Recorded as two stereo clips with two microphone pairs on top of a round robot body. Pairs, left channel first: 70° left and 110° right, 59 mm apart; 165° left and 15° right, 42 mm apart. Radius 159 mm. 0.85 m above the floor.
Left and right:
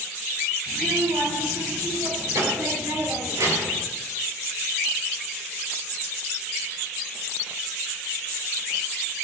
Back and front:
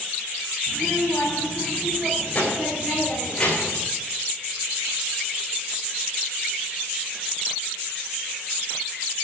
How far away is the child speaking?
About 5 m.